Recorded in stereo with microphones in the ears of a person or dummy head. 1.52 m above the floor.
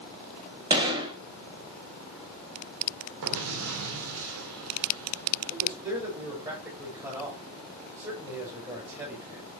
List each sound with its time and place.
0.7 s a gunshot: 30° right (ahead or behind), 2.5 m
3.2 s an explosion: 60° right (ahead or behind), 2 m
5.5 s a man speaking: 20° right (ahead or behind), 7.5 m